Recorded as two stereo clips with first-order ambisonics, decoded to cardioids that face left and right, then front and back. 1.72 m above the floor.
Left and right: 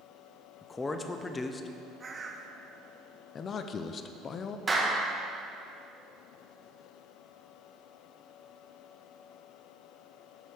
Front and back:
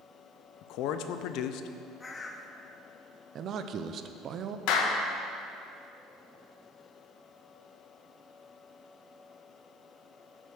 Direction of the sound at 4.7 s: 15° right.